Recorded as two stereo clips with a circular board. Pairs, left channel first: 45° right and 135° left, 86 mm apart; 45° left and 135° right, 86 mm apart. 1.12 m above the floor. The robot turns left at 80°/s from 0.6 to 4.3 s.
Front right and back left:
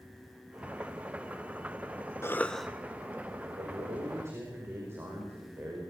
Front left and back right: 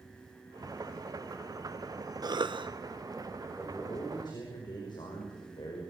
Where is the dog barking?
No dog barking in this recording.